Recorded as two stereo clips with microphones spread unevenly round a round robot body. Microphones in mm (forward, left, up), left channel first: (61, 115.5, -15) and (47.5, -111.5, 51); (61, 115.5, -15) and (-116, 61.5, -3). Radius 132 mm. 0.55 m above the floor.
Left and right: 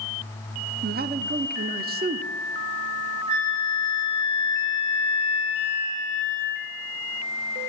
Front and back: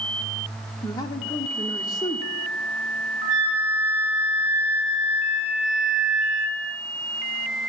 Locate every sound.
0.8 s a man speaking: 40° right, 0.8 m
3.3 s a flute: 120° right, 4.5 m